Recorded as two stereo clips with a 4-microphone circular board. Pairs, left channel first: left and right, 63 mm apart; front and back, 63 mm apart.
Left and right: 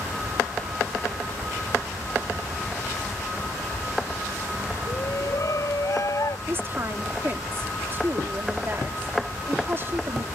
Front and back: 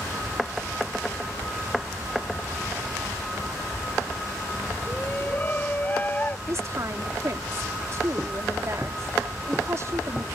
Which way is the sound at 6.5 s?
140° right.